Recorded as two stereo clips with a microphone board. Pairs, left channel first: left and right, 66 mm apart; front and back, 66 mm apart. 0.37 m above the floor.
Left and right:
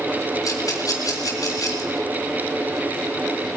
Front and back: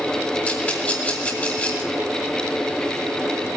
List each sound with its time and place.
0.5 s a rattle: 65° left, 3.5 m